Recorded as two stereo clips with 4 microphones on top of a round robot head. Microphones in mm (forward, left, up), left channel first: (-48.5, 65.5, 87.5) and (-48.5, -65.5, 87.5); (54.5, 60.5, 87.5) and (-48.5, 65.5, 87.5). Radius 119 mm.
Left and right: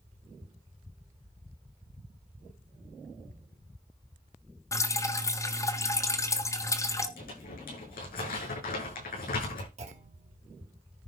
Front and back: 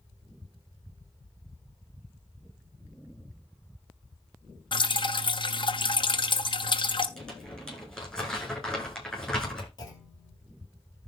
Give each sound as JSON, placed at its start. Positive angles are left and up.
{"t": 4.7, "sound": "dripping", "azimuth_deg": 25, "distance_m": 1.5}
{"t": 7.2, "sound": "crumpling", "azimuth_deg": 80, "distance_m": 9.0}
{"t": 9.8, "sound": "a clunk", "azimuth_deg": -55, "distance_m": 3.0}